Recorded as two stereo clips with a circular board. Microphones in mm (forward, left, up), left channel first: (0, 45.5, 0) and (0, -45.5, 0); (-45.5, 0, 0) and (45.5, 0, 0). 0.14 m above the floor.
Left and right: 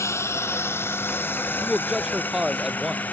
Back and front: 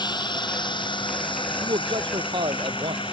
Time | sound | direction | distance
0.0 | a drone | 145° left | ?
1.6 | a man speaking | 5° right | ?